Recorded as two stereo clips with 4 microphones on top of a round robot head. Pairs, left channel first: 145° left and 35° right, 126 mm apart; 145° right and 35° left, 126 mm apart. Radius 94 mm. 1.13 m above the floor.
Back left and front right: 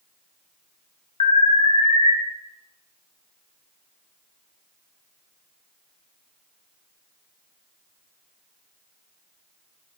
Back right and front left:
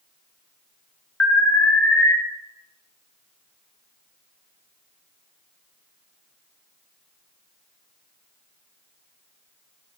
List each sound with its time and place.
1.2 s an alarm: 140° left, 0.6 m